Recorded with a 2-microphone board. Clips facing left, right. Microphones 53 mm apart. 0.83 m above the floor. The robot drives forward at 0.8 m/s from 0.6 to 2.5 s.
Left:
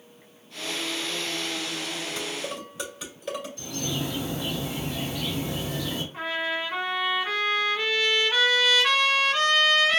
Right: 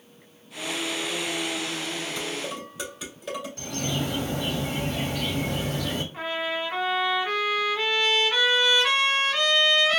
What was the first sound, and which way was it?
Dishes clattering, 5° right (ahead or behind).